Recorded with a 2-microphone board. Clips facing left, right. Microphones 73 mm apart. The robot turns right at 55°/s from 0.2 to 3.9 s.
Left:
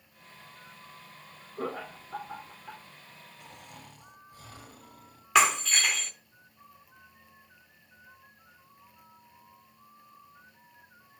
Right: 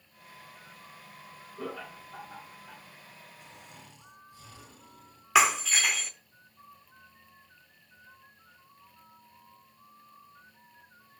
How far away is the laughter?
About 2.5 m.